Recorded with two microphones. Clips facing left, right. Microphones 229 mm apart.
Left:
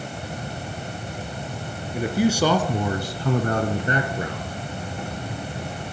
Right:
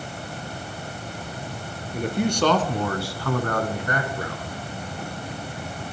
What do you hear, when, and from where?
1.9 s a man speaking: 5° left (ahead or behind), 2.5 m; by 4.6 s 20° left (ahead or behind), 2.5 m